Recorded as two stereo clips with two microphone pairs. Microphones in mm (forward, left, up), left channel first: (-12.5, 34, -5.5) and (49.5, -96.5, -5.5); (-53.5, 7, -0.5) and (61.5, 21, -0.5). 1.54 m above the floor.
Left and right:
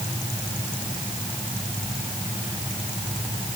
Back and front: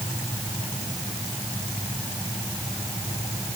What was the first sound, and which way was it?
Only background noise.